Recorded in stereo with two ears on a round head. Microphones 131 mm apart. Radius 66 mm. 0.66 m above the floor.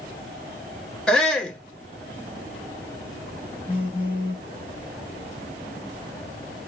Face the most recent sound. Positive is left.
turn(degrees=-10)  # may be behind; listen again after turning